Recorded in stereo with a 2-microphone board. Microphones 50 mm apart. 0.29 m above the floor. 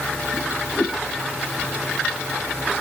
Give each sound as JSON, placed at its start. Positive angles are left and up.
{"t": 0.3, "sound": "a whoosh", "side_deg": 35}